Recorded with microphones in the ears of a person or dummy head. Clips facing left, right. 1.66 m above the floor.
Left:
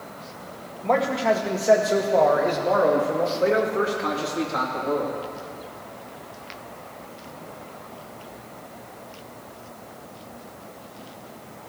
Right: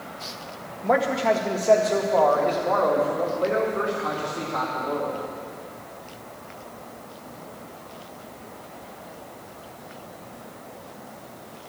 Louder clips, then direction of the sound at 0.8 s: Even; 15° right (ahead or behind).